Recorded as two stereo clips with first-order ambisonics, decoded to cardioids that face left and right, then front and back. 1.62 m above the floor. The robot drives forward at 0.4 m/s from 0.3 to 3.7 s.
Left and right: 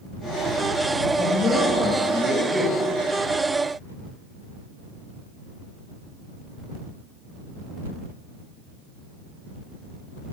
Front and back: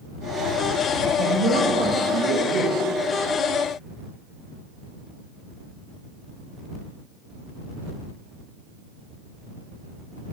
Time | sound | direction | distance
1.2 | a man speaking | 140° left | 2.5 m